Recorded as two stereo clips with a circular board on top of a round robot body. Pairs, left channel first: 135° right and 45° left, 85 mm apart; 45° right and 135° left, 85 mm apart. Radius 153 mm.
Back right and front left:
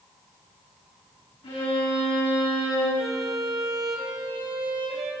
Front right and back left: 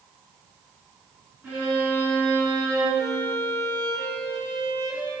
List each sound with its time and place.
1.4 s a violin: 155° right, 6 m
3.0 s a violin: 15° left, 3 m